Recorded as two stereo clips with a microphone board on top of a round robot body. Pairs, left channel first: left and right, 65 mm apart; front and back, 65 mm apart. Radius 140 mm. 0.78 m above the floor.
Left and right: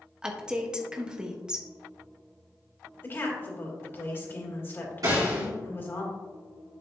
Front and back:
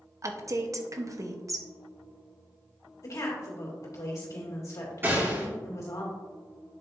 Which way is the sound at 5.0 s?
125° right.